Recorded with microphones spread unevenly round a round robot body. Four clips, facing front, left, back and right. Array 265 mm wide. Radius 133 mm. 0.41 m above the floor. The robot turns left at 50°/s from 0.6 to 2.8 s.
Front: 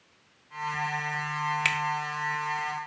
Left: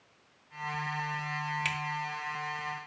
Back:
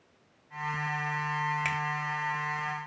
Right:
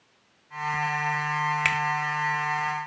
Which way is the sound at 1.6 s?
60° right.